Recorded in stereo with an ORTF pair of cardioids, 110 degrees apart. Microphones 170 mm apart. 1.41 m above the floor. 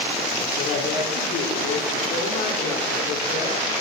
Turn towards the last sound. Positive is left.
turn(degrees=60)